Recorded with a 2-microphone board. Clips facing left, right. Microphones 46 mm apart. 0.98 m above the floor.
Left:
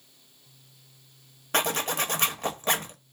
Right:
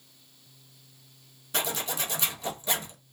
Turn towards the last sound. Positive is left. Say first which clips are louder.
# left 5 dB
turn(degrees=55)  # may be behind; listen again after turning